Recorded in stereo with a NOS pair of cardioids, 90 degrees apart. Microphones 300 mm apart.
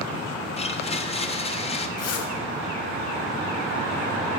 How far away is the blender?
About 0.9 m.